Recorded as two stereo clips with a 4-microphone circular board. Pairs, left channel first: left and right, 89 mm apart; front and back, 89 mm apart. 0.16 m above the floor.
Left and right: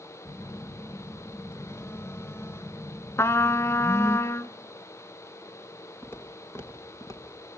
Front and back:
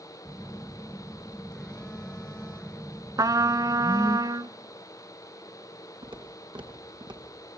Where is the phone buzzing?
75° left, 1.1 m.